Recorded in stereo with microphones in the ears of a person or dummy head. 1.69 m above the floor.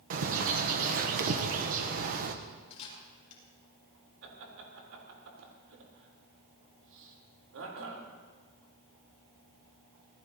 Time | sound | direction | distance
0.1 | a bird | 45° right (ahead or behind) | 1.0 m
2.7 | a camera shutter | 35° left (ahead or behind) | 6 m
4.2 | laughter | 75° right (ahead or behind) | 4 m